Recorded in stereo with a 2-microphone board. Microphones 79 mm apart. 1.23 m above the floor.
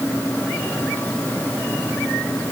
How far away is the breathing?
No breathing in this recording.